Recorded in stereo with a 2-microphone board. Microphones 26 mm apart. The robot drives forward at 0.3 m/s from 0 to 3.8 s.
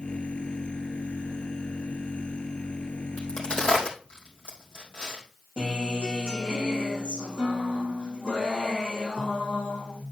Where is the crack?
50° left (ahead or behind), 3.5 m; by 5.2 s 45° left (ahead or behind), 3.5 m.